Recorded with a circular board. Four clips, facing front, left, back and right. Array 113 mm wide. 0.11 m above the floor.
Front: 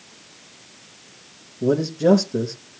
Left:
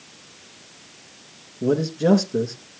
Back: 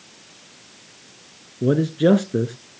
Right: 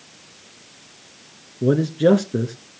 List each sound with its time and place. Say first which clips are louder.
1.6 s a man speaking: right 3 dB, back 1 dB; 150° right, 1.1 m